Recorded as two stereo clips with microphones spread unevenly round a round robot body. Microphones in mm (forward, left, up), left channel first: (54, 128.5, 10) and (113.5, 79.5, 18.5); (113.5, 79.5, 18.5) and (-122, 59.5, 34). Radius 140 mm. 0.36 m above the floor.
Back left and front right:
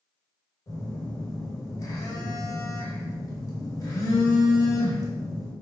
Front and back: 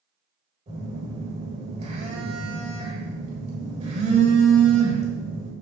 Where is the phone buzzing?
125° left, 1.9 m.